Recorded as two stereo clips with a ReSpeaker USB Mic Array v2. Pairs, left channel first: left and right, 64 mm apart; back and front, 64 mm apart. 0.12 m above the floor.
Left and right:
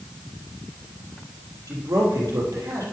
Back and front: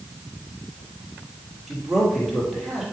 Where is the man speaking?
90° right, 3 m.